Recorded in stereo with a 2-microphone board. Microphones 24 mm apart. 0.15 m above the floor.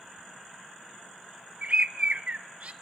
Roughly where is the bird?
Right.